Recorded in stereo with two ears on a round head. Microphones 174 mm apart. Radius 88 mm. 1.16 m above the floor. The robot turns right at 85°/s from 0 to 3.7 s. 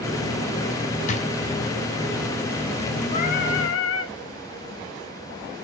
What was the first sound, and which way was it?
A drawer, 35° left (ahead or behind).